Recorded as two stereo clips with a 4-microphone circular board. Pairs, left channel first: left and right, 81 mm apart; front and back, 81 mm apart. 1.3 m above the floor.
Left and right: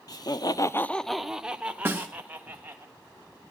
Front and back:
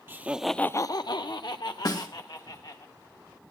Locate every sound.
0.1 s laughter: 120° left, 0.9 m; by 2.9 s 25° right, 3 m
1.9 s a snare drum: 30° right, 2.5 m